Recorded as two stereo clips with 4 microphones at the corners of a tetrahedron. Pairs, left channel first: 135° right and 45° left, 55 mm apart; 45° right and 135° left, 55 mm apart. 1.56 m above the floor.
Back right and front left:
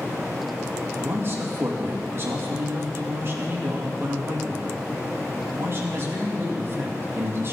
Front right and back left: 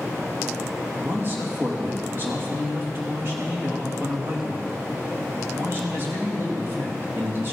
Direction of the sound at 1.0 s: 85° left.